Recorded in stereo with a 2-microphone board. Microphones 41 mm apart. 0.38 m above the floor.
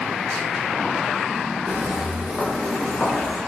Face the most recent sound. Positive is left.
turn(degrees=30)  # may be behind; listen again after turning